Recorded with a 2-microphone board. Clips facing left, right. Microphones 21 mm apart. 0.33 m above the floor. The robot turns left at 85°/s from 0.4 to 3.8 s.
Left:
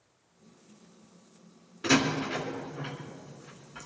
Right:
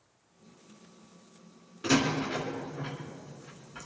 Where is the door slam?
10° left (ahead or behind), 2 m; by 3.9 s 5° left (ahead or behind), 2 m.